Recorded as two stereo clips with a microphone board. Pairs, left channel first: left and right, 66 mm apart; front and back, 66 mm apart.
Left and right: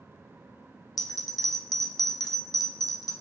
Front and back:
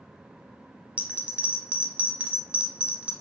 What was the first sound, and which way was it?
A bell, 110° left.